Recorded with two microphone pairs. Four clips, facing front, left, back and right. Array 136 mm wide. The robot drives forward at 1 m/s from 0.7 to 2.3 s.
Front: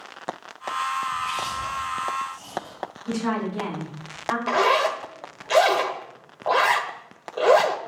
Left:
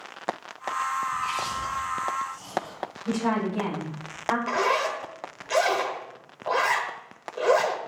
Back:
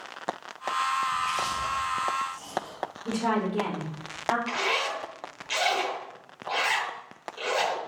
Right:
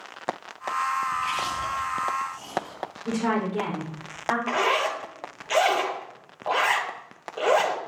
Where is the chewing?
95° right, 7 m; by 2.8 s 105° right, 7.5 m.